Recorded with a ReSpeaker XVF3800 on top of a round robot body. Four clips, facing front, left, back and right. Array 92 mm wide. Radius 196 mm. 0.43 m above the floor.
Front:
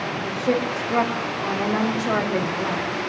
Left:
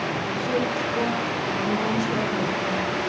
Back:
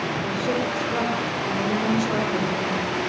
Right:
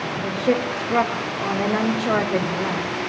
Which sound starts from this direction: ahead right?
A woman speaking, at 0.2 s.